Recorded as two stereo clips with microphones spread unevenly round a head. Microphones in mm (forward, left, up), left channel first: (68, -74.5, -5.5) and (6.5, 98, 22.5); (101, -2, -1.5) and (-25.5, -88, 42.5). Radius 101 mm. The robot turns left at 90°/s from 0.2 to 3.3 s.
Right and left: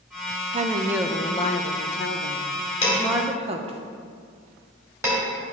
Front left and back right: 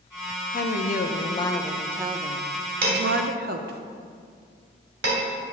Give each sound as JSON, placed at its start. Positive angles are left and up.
{"t": 0.5, "sound": "a woman speaking", "azimuth_deg": 60, "distance_m": 0.7}
{"t": 2.8, "sound": "dishes clattering", "azimuth_deg": -130, "distance_m": 3.0}